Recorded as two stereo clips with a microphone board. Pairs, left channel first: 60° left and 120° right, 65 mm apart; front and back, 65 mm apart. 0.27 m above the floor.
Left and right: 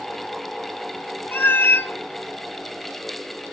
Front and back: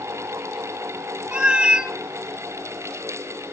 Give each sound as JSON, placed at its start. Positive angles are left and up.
{"t": 1.3, "sound": "a cat meowing", "azimuth_deg": 110, "distance_m": 0.7}